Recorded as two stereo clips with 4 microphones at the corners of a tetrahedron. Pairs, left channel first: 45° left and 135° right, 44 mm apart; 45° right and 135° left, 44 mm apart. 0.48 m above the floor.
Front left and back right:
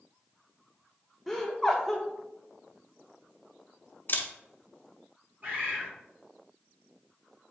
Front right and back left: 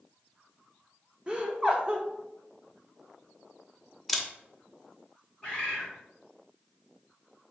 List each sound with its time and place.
1.3 s laughter: 130° left, 0.7 m
4.1 s a camera shutter: 45° left, 0.5 m
5.4 s a bird: 105° right, 2 m